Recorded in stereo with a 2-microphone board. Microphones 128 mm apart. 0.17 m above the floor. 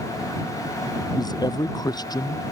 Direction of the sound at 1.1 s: 30° left (ahead or behind).